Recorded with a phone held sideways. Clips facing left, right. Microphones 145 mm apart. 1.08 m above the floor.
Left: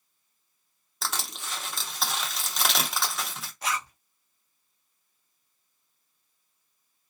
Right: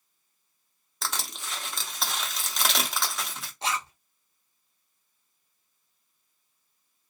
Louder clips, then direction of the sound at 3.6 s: Right 1 dB; 25° right (ahead or behind).